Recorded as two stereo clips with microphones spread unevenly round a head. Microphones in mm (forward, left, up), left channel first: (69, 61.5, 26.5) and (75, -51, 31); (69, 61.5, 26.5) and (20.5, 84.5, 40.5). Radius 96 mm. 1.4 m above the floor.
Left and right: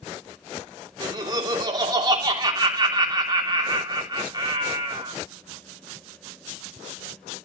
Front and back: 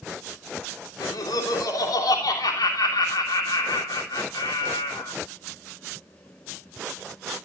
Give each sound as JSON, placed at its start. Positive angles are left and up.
{"t": 1.0, "sound": "laughter", "azimuth_deg": -35, "distance_m": 3.0}